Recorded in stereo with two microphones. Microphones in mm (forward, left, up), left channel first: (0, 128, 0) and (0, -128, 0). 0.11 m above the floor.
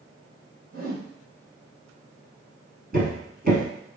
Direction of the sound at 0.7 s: 65° right (ahead or behind).